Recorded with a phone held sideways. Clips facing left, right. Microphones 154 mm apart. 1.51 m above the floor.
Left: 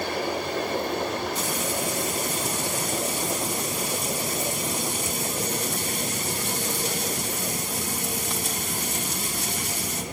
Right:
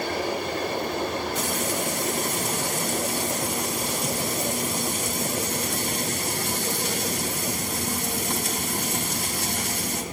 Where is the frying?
65° right (ahead or behind), 2.5 m.